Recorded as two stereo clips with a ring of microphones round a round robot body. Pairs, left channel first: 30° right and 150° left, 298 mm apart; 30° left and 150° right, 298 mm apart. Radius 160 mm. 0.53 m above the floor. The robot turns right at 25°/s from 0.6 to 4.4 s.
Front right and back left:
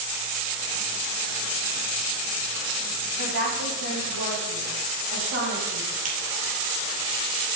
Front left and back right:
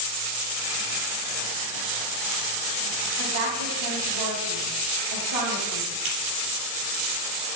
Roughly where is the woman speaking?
Behind.